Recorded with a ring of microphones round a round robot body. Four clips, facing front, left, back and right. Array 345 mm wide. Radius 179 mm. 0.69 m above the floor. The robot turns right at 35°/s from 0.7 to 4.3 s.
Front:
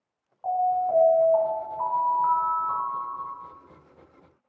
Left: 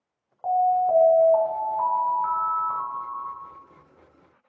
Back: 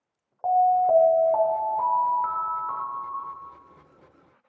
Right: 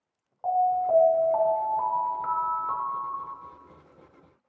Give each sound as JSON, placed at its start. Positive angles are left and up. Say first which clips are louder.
{"t": 0.4, "sound": "an alarm", "louder": "left 3 dB, back 5 dB", "azimuth_deg": 170, "distance_m": 2.0}